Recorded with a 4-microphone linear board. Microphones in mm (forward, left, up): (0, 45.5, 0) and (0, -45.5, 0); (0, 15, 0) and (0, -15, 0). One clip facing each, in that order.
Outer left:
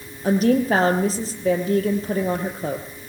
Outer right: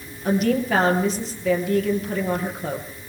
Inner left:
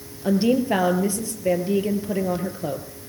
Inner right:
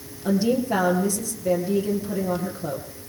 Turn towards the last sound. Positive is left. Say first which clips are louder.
# outer left 3 dB, inner left 2 dB
turn(degrees=35)  # may be behind; listen again after turning